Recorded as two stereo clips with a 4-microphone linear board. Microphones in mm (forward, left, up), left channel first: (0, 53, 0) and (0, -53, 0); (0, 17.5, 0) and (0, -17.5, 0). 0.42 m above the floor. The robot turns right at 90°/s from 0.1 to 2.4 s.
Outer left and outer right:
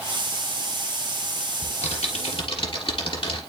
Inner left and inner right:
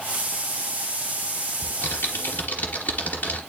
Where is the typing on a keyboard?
50° left, 3 m; by 3.4 s 120° left, 3 m.